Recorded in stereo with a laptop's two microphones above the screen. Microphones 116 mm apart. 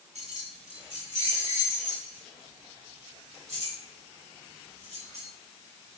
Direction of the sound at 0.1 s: 70° right (ahead or behind).